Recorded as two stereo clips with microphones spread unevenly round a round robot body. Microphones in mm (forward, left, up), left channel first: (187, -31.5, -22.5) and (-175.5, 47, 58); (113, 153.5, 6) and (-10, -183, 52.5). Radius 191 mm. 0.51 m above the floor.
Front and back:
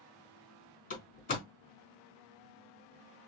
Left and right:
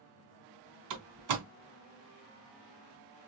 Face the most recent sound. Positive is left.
turn(degrees=-80)